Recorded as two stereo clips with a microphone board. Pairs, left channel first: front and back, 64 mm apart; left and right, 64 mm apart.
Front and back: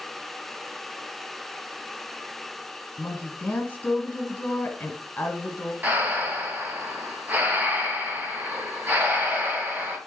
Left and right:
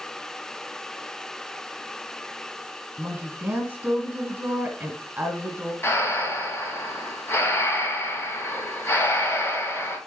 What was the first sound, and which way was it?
A woman speaking, 45° right.